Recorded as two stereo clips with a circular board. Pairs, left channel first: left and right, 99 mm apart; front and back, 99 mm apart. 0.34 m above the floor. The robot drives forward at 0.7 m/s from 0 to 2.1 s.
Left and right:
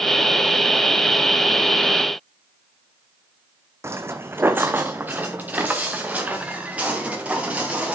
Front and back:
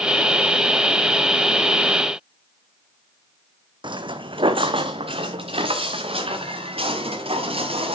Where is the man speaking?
No man speaking in this recording.